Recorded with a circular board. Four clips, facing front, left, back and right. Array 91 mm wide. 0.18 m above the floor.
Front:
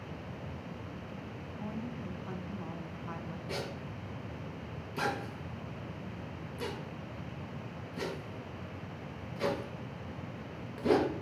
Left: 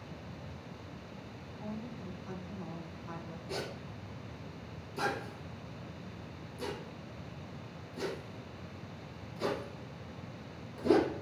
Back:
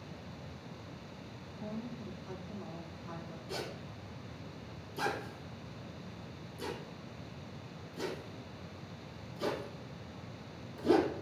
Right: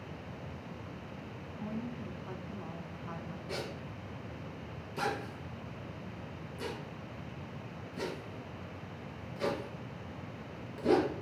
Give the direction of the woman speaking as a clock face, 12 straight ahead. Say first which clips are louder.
Right 3 dB, front 1 dB; 1 o'clock.